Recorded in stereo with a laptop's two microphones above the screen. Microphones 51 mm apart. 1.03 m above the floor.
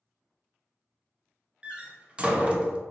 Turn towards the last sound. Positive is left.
turn(degrees=-20)  # may be behind; listen again after turning